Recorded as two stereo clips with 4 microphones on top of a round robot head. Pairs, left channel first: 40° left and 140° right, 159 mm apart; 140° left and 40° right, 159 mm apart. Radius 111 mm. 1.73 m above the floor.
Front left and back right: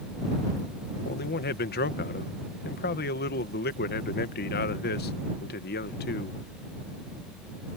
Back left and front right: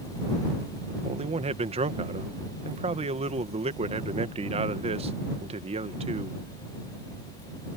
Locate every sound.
1.0 s a man speaking: 15° left